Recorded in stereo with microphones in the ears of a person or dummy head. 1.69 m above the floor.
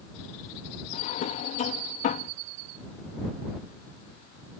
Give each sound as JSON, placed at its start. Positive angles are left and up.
{"t": 0.9, "sound": "a drawer", "side_deg": 50}